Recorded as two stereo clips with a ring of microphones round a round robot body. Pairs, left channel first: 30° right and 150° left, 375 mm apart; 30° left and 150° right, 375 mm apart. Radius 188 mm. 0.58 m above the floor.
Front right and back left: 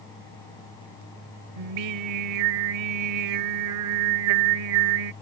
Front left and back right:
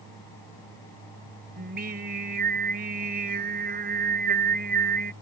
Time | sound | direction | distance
1.6 | singing | 145° left | ?